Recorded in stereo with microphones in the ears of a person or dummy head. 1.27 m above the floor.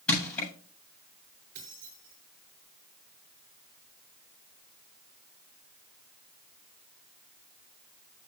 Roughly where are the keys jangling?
Right.